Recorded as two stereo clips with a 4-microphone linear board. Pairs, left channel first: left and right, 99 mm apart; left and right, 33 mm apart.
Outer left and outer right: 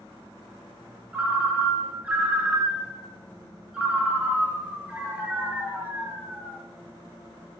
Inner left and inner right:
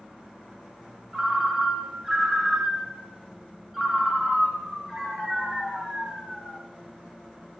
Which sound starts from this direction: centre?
A ringtone, at 1.1 s.